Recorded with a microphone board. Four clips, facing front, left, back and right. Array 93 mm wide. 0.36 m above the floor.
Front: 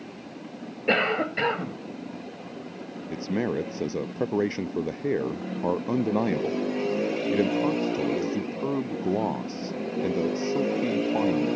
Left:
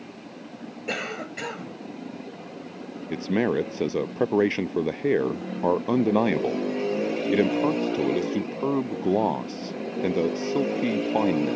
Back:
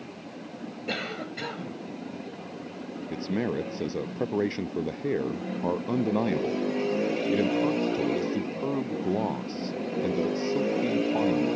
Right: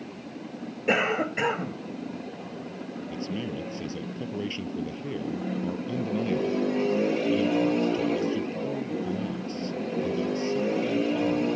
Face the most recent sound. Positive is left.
turn(degrees=80)